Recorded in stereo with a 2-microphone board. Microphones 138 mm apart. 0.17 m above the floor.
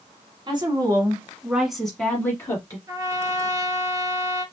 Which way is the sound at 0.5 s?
35° right (ahead or behind).